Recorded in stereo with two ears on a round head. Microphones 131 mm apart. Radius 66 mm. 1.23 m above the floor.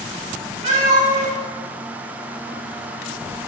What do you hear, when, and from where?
0.6 s a cat meowing: 45° right (ahead or behind), 1.5 m